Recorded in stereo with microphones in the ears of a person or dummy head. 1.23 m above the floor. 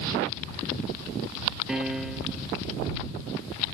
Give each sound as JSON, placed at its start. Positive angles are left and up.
{"t": 1.7, "sound": "a piano", "side_deg": 0}